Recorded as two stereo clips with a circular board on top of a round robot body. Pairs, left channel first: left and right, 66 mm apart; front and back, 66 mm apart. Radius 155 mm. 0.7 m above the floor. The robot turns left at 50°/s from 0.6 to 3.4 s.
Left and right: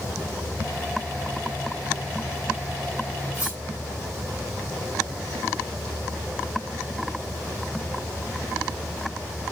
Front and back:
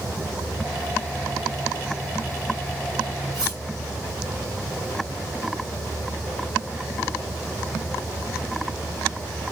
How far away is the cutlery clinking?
About 4.5 m.